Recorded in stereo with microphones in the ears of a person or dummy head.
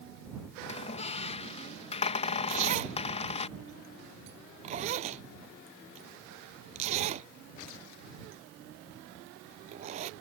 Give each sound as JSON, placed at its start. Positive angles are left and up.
{"t": 0.6, "sound": "a squeak", "side_deg": 25}
{"t": 2.5, "sound": "a zipper", "side_deg": -30}